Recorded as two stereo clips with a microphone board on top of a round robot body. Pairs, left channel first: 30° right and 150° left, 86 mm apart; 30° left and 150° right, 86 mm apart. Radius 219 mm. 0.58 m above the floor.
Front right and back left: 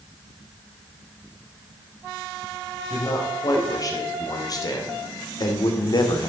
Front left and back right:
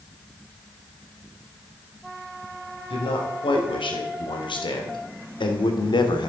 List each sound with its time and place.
2.9 s a man speaking: 20° left, 4.5 m; by 6.3 s 5° left, 2.5 m